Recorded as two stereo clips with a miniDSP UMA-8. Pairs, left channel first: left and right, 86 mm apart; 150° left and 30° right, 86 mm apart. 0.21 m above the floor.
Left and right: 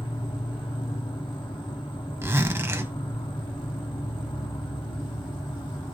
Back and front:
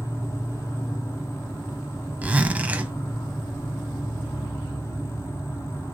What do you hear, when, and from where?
0.0 s an insect: 95° left, 1.0 m
2.2 s a zipper: 80° right, 0.7 m